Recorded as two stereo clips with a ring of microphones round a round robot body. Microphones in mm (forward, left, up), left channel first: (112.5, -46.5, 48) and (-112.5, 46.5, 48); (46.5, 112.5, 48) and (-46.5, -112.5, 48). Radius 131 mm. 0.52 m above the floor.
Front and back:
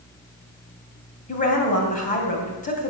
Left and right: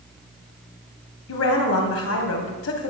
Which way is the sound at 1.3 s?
35° left.